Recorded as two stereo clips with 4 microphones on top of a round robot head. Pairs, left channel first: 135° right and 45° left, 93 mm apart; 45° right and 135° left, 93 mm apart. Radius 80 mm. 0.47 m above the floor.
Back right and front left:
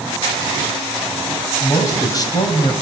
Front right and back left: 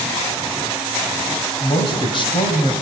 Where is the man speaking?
75° right, 3.5 m; by 2.7 s 90° right, 3.5 m.